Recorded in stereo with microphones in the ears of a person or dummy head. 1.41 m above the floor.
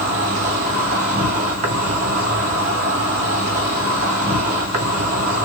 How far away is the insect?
About 0.8 m.